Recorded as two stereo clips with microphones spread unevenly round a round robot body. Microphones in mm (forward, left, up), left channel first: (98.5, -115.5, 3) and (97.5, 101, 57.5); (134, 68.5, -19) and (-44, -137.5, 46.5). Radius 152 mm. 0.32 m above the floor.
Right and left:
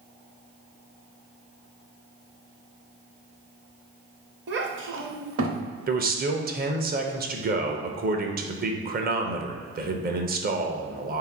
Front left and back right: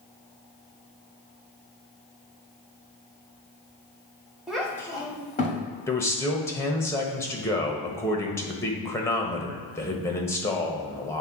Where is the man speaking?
80° left, 0.9 m.